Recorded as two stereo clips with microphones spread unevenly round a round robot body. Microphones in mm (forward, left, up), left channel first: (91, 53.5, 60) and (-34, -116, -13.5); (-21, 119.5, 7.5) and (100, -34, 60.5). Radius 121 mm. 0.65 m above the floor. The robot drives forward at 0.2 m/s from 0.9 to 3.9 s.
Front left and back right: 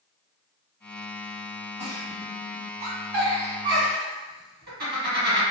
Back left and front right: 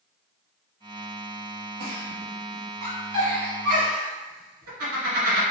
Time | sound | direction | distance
1.8 | a giggle | 65° right | 1.6 m